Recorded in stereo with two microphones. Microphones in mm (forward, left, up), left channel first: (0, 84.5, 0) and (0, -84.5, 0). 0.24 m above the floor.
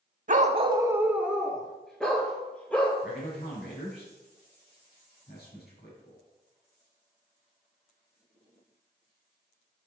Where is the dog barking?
50° right (ahead or behind), 0.5 m; by 2.9 s 10° left (ahead or behind), 2.5 m.